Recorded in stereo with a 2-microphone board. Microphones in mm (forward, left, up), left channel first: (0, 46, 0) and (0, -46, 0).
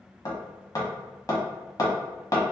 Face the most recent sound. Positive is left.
turn(degrees=45)  # may be behind; listen again after turning